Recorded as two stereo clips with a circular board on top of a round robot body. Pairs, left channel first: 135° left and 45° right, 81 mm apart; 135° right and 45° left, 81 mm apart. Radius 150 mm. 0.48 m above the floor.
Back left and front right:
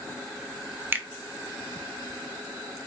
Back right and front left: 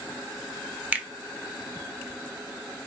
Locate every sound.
0.9 s a finger snap: 5° right, 0.6 m